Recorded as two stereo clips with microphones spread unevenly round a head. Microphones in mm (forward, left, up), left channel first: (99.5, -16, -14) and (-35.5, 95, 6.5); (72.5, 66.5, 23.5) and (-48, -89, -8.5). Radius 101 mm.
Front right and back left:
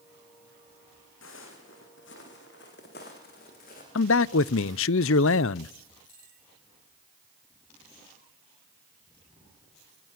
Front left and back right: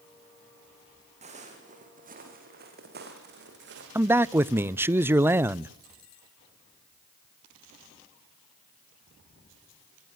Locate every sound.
1.2 s footsteps: 70° right, 6 m; by 3.9 s 95° right, 7 m
4.0 s a man speaking: 50° right, 0.6 m